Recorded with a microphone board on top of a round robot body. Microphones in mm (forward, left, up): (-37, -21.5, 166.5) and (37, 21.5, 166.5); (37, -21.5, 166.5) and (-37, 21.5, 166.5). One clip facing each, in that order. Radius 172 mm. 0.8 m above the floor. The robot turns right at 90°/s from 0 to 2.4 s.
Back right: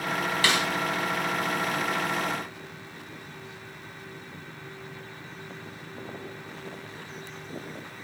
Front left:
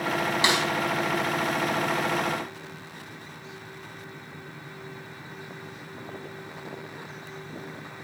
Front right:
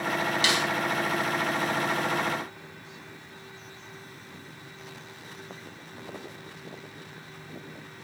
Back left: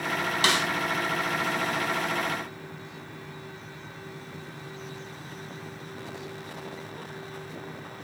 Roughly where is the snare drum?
Left.